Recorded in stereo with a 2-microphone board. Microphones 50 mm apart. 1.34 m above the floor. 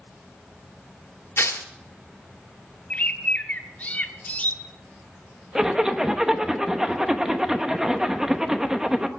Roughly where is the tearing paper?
Left.